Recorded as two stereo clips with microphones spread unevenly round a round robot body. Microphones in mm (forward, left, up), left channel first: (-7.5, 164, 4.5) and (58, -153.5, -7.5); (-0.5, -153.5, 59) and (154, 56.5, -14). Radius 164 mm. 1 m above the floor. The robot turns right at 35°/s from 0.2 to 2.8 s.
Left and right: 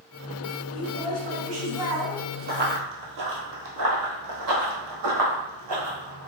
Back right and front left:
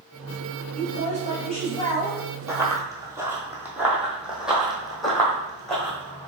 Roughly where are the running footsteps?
Ahead right.